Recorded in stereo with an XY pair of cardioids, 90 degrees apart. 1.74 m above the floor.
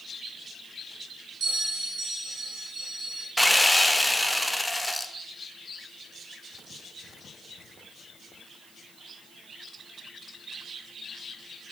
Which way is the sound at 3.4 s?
10° left.